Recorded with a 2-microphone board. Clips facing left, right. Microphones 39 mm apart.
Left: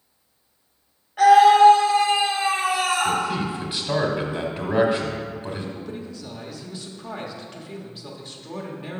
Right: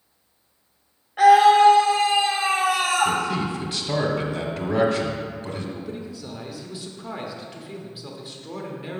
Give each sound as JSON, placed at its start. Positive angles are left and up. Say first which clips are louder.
{"t": 1.2, "sound": "a scream", "louder": "left 1 dB", "side_deg": -10, "distance_m": 1.0}
{"t": 3.0, "sound": "a man speaking", "louder": "even", "side_deg": 10, "distance_m": 1.0}
{"t": 5.8, "sound": "a man speaking", "louder": "right 1 dB", "side_deg": -5, "distance_m": 0.9}